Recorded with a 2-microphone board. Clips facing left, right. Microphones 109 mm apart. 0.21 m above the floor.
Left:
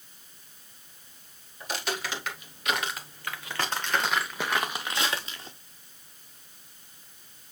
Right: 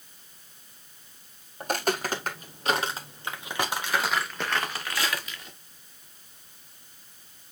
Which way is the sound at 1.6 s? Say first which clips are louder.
Right 6 dB; 50° right (ahead or behind).